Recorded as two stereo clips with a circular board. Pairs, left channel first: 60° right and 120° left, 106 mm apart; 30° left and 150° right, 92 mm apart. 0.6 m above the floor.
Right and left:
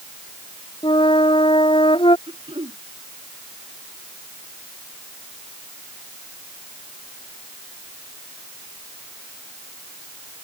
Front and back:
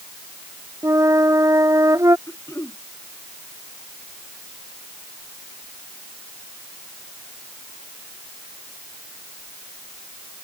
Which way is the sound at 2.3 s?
85° left.